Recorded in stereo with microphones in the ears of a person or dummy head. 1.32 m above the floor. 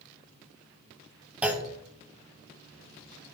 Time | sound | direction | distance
1.4 | a clunk | 5° right (ahead or behind) | 0.8 m